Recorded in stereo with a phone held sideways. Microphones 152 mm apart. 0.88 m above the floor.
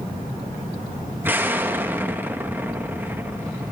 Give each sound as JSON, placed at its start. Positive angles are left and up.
{"t": 1.2, "sound": "an explosion", "side_deg": -15, "distance_m": 0.9}